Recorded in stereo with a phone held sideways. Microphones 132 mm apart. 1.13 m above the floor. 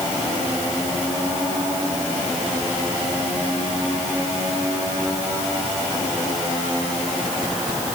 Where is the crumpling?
No crumpling in this recording.